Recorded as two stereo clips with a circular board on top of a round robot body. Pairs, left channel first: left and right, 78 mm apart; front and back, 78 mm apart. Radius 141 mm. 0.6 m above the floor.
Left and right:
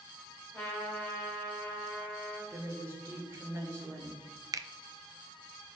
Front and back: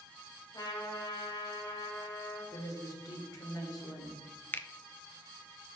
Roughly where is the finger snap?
Ahead right.